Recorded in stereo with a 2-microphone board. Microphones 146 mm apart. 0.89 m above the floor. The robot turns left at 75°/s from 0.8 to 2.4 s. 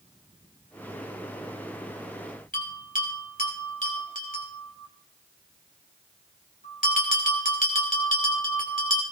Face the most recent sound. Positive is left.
turn(degrees=65)  # may be behind; listen again after turning